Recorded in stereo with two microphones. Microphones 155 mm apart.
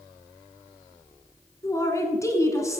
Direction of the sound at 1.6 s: 20° left (ahead or behind).